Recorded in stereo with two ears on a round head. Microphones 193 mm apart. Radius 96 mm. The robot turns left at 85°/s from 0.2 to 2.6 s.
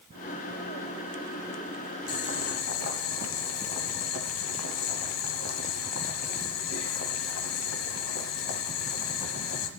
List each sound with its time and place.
2.1 s boiling: 140° left, 1.4 m; by 9.7 s 95° left, 1.4 m